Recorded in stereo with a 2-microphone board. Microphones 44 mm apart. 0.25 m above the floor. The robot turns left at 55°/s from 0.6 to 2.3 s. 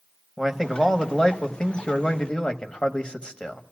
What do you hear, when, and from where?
0.4 s a man speaking: 5° left (ahead or behind), 0.9 m; by 3.6 s 20° left (ahead or behind), 0.9 m